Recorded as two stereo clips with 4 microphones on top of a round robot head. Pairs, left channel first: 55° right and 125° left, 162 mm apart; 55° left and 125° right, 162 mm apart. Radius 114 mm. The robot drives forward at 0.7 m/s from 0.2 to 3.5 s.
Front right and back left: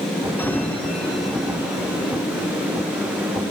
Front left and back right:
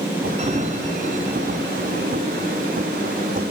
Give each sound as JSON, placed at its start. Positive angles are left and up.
{"t": 0.4, "sound": "a sliding door", "azimuth_deg": -130, "distance_m": 1.7}